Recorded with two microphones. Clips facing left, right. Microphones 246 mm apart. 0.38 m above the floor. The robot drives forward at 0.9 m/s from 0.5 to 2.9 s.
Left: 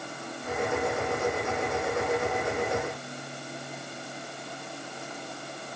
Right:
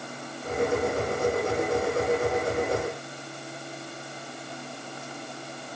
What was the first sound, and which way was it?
Only background noise.